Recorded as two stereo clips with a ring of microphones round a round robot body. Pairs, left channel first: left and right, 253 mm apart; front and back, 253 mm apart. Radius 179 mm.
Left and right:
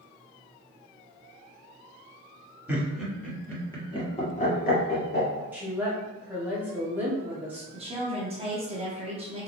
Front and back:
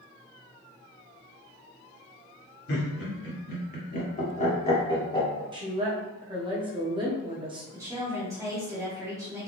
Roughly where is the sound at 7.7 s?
Behind right.